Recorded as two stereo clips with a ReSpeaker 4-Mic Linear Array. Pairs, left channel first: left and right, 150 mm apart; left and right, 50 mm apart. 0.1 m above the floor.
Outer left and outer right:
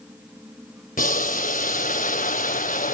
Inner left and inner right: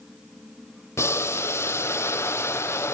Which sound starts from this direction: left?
Boiling, at 1.0 s.